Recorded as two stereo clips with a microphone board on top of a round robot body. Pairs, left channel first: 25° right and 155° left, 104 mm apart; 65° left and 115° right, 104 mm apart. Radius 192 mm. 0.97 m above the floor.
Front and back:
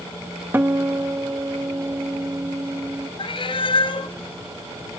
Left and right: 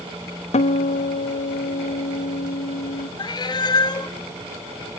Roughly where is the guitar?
Left.